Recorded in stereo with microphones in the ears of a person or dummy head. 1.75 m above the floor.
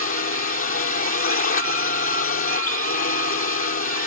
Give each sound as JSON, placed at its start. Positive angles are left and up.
{"t": 0.0, "sound": "a drone", "side_deg": 50}